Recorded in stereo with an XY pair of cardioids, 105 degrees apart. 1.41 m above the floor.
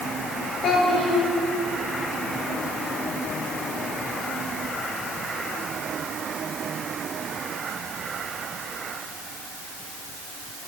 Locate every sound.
0.6 s a child speaking: 60° left, 2.5 m